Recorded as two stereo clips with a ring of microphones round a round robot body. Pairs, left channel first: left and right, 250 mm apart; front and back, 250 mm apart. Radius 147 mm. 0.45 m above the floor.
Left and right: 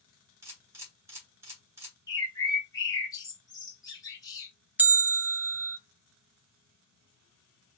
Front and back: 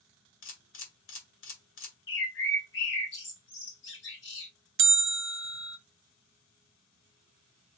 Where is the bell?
170° right, 0.6 m.